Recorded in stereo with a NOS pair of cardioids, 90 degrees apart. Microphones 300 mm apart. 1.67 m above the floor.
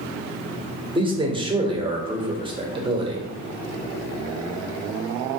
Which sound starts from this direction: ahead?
A man speaking, at 0.9 s.